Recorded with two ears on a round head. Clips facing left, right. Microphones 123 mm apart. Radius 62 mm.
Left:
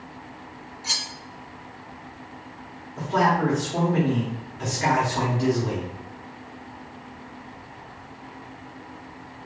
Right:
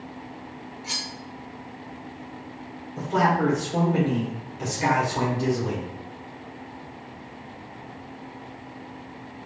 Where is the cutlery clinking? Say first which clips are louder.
Left 2 dB; 65° left (ahead or behind), 1.0 m.